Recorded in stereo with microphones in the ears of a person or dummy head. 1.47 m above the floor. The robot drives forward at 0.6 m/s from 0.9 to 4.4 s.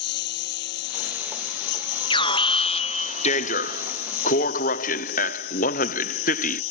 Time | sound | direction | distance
0.0 | a lawn mower | 60° left (ahead or behind) | ?
2.1 | an alarm | 25° left (ahead or behind) | ?